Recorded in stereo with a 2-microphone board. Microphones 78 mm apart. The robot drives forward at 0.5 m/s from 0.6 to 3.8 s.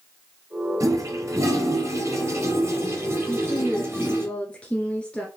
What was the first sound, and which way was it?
A toilet flushing, 45° right (ahead or behind).